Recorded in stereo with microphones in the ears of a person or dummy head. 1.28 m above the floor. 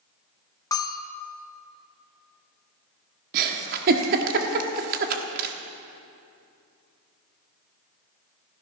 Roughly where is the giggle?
Right.